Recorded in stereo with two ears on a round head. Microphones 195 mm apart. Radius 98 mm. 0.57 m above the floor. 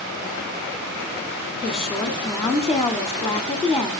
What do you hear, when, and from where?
1.6 s a woman speaking: centre (ahead or behind), 1.6 m